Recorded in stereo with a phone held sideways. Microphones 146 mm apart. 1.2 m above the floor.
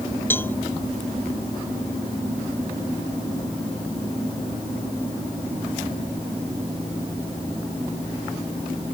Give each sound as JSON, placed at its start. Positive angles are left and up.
{"t": 0.3, "sound": "a cowbell", "side_deg": 15}